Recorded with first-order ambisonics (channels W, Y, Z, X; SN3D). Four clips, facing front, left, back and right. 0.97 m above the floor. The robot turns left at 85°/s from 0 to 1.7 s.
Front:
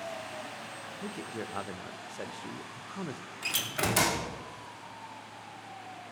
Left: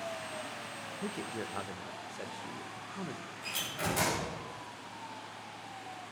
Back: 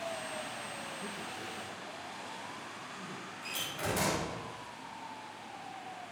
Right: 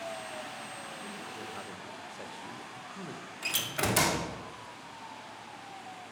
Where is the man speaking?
70° left, 0.6 m; by 3.2 s 10° left, 0.6 m.